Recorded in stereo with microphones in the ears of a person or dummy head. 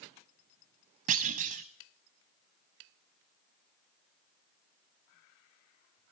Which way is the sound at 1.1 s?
40° right (ahead or behind).